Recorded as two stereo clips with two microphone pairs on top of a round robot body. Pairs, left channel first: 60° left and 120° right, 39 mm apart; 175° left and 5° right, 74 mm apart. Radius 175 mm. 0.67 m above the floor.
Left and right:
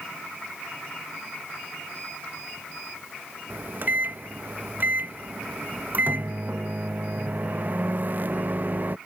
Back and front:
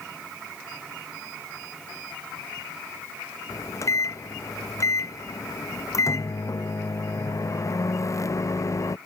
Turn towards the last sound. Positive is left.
turn(degrees=-155)